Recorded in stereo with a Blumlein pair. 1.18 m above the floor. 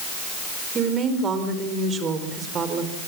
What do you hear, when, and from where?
0.8 s a woman speaking: 25° right, 4.5 m